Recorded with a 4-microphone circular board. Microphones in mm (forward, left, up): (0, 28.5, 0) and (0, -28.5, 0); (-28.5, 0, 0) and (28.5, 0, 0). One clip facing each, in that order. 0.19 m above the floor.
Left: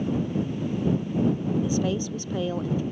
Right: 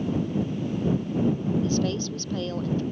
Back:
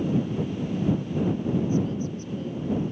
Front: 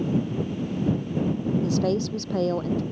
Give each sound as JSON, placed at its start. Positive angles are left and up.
{"t": 1.6, "sound": "a woman speaking", "azimuth_deg": 10}